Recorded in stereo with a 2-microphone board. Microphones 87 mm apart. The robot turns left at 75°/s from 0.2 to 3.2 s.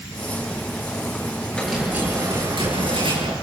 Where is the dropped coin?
15° left, 8 m; by 3.3 s 110° right, 8 m.